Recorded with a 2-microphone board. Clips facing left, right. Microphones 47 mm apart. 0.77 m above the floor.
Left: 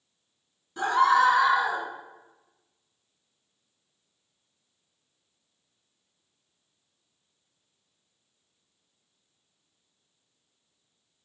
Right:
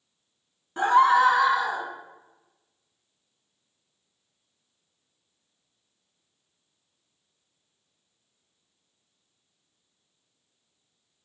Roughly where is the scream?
Right.